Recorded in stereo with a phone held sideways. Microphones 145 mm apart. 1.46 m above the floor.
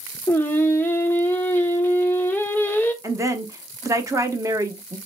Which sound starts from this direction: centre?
Singing, at 0.3 s.